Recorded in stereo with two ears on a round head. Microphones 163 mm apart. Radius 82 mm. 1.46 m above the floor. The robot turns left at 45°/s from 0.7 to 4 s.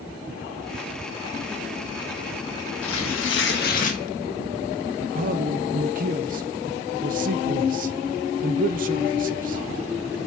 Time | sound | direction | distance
2.8 | tearing paper | 90° left | 1.8 m
5.0 | a man speaking | 45° right (ahead or behind) | 1.0 m